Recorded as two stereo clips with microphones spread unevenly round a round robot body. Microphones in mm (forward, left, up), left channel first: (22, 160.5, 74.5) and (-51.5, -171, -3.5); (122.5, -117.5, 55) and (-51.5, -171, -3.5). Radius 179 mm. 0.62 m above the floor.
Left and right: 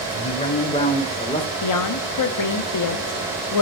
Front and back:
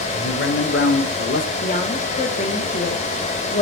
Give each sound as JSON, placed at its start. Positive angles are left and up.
{"t": 0.1, "sound": "a man speaking", "azimuth_deg": 0, "distance_m": 3.0}
{"t": 1.6, "sound": "a woman speaking", "azimuth_deg": 75, "distance_m": 1.3}